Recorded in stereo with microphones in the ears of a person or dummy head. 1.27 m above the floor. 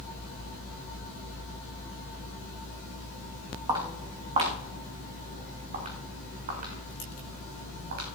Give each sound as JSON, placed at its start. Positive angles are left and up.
{"t": 3.7, "sound": "footsteps", "side_deg": -25, "distance_m": 4.0}